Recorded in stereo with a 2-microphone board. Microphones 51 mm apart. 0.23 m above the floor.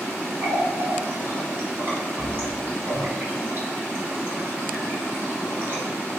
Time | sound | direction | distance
0.4 | a running tap | 45° right (ahead or behind) | 1.6 m